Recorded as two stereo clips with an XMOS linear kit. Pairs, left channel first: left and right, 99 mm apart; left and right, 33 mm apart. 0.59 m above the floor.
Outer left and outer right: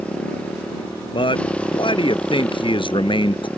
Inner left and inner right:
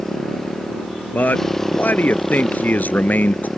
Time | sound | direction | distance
0.0 | a motorcycle | 10° left (ahead or behind) | ?
1.1 | a man speaking | 60° left (ahead or behind) | ?